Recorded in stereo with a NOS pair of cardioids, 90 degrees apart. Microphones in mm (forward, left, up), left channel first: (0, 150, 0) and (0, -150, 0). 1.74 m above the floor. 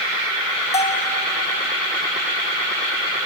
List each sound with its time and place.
0.7 s a bell: 20° left, 2 m